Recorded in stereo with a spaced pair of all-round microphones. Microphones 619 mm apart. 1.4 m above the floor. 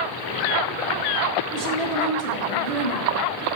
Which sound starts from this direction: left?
A woman speaking, at 1.5 s.